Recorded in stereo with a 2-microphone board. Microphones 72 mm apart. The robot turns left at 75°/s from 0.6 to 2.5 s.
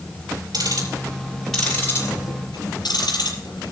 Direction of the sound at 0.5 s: 65° right (ahead or behind).